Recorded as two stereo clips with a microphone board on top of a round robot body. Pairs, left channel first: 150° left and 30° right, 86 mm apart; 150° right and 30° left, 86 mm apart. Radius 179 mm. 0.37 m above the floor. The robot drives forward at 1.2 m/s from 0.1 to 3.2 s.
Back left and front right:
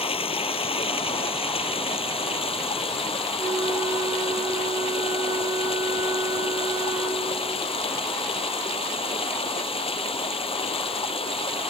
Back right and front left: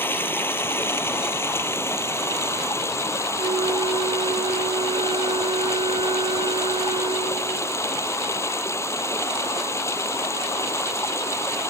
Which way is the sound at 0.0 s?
145° left.